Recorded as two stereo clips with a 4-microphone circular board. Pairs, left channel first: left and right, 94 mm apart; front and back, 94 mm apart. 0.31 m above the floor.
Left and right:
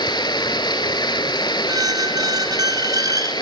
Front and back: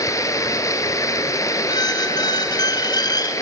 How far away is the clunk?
I don't hear a clunk.